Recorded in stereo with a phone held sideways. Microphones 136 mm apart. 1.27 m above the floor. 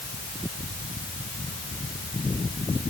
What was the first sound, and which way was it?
Only background noise.